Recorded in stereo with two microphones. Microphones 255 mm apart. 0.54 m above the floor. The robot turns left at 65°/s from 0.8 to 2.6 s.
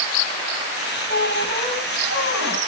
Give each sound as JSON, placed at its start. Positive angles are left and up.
{"t": 1.1, "sound": "a squeak", "azimuth_deg": -50, "distance_m": 2.5}